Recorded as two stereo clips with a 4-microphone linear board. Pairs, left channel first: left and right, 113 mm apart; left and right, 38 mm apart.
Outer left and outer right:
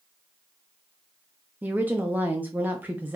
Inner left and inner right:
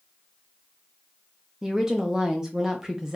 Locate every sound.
1.6 s a woman speaking: 15° right (ahead or behind), 0.6 m